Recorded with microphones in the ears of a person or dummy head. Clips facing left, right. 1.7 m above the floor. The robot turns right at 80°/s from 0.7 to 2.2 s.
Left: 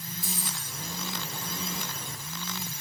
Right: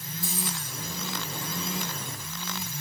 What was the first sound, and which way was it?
Keys jangling, 25° right (ahead or behind).